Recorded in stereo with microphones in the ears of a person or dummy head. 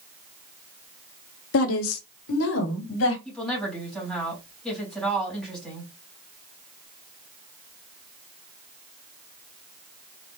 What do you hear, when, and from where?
1.5 s a woman speaking: 75° left (ahead or behind), 0.8 m; by 3.1 s 85° left, 1.9 m
3.2 s a woman speaking: 5° left (ahead or behind), 3.5 m